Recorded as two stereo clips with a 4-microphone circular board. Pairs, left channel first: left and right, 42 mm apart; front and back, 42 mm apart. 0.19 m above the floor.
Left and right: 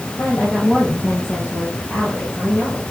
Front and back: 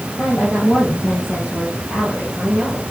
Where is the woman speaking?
25° left, 5 m; by 2.8 s 40° left, 6 m.